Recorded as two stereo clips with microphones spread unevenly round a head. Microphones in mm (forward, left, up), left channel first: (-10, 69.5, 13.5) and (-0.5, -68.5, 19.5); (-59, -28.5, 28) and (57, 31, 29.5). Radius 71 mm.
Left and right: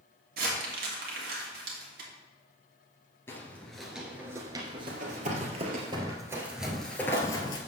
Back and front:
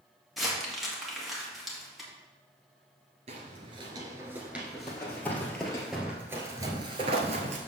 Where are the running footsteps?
85° right, 1.8 m; by 7.6 s 40° left, 1.5 m.